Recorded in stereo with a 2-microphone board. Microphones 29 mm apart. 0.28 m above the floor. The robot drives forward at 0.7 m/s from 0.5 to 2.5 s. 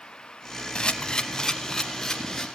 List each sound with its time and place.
0.8 s a camera shutter: 35° left (ahead or behind), 0.7 m; by 2.5 s 15° left (ahead or behind), 1.7 m